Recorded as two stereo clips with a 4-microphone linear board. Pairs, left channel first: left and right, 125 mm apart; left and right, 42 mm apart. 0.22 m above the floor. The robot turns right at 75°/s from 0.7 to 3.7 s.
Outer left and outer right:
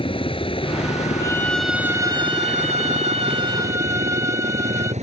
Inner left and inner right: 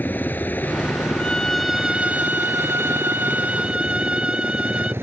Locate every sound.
0.0 s a helicopter: 50° left; by 5.0 s 85° right
1.2 s a violin: 145° left; by 4.9 s 25° right